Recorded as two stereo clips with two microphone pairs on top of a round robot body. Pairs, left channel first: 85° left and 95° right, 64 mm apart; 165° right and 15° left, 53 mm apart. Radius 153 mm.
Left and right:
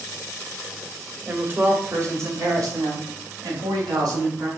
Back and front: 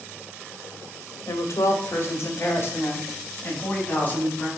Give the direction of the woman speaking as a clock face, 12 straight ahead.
5 o'clock.